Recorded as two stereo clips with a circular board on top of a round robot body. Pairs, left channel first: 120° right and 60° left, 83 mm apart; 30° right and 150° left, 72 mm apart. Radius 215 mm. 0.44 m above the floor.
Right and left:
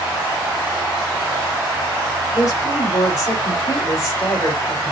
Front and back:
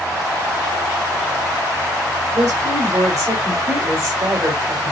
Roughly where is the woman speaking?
Behind.